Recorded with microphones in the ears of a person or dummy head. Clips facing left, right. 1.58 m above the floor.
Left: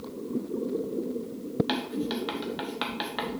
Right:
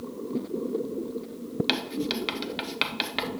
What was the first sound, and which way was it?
Writing, 35° right (ahead or behind).